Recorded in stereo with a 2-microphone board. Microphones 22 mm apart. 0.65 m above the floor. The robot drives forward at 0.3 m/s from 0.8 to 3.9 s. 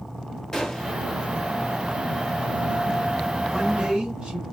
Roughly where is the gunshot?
Left.